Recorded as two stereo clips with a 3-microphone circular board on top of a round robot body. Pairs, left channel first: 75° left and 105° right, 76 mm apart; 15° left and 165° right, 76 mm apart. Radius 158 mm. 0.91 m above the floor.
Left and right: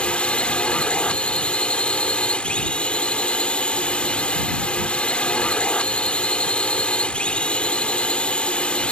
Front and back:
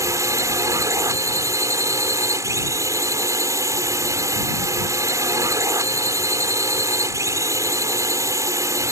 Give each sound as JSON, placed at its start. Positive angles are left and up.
{"t": 0.0, "sound": "a drone", "azimuth_deg": 150}